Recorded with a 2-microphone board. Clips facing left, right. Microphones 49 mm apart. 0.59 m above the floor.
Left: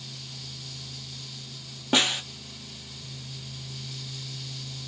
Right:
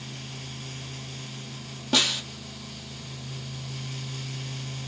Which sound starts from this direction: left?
A snare drum, at 1.9 s.